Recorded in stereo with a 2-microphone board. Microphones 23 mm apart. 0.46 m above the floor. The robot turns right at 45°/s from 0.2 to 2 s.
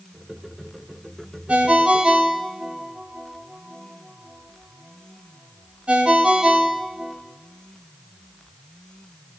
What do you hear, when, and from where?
1.5 s a ringtone: 80° right, 1.1 m; by 7.2 s 60° right (ahead or behind), 1.1 m